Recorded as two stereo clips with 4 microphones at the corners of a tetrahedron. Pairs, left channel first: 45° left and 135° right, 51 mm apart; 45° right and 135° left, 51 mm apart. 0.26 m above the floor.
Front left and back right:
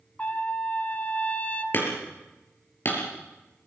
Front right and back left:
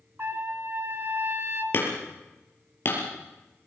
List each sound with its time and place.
0.2 s a trumpet: 100° left, 1.7 m
1.7 s hammering: straight ahead, 4.5 m